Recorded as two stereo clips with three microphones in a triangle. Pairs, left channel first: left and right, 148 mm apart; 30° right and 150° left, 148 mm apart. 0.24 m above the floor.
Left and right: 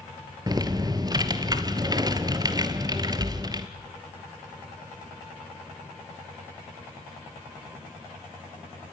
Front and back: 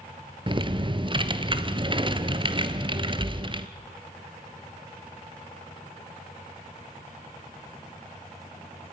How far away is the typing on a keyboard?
About 1.3 m.